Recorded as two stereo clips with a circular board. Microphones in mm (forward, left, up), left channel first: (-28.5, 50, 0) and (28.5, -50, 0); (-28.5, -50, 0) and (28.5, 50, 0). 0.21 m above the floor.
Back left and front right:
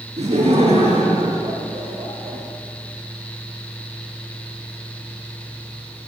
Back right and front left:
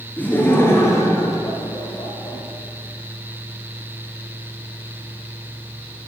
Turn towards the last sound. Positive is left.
turn(degrees=-85)